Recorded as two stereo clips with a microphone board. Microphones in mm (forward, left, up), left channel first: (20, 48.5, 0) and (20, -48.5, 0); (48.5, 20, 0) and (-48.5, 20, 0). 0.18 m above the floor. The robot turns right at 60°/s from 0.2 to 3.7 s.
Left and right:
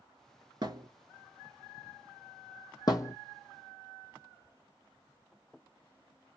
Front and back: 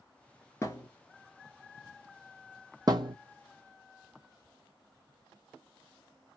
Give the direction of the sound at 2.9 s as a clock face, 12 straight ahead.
8 o'clock.